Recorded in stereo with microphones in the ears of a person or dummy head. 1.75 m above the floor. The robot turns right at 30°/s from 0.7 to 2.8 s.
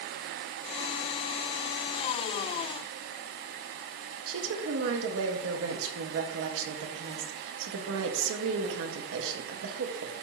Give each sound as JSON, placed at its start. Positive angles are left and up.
{"t": 4.3, "sound": "a woman speaking", "side_deg": -75, "distance_m": 1.5}